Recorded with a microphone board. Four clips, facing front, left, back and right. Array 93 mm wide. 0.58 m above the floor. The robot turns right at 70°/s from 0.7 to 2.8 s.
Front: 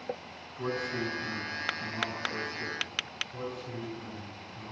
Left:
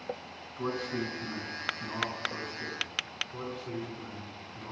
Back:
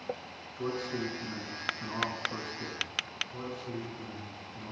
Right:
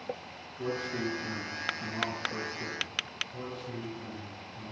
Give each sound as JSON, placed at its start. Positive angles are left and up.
{"t": 0.6, "sound": "a man speaking", "azimuth_deg": 55, "distance_m": 5.0}
{"t": 3.3, "sound": "a man speaking", "azimuth_deg": 115, "distance_m": 4.5}